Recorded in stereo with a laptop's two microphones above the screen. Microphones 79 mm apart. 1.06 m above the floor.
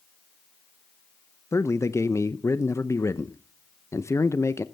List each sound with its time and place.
1.5 s a man speaking: 40° left (ahead or behind), 0.7 m